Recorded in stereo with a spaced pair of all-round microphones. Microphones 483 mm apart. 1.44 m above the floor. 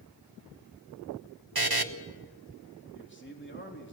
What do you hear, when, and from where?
1.6 s a buzzer: 50° right (ahead or behind), 1.2 m
2.9 s a man speaking: 25° left (ahead or behind), 3.5 m